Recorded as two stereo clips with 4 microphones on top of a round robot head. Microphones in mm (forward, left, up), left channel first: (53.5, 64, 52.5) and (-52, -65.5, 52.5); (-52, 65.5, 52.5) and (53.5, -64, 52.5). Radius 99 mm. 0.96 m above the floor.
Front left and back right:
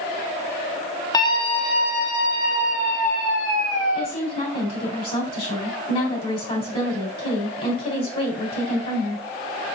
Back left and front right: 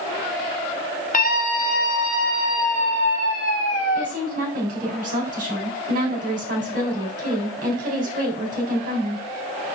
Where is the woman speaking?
5° right, 3.5 m.